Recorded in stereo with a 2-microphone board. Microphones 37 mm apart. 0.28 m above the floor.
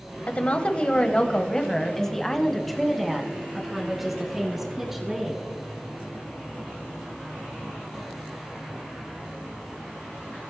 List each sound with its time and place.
0.3 s a woman speaking: 40° left (ahead or behind), 1.3 m; by 5.4 s 10° right (ahead or behind), 3.5 m